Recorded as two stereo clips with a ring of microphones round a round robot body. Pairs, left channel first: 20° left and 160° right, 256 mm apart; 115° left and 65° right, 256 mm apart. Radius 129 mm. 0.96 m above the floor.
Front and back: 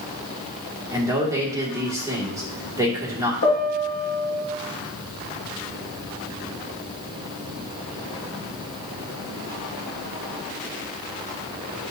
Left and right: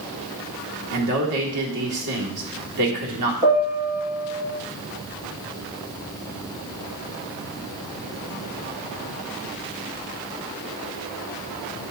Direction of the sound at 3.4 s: 25° right.